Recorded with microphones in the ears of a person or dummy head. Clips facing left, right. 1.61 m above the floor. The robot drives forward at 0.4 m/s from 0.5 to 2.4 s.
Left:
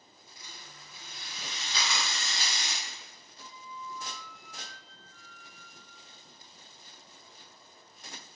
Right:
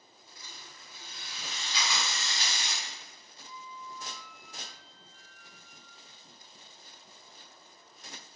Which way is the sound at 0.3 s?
50° right (ahead or behind).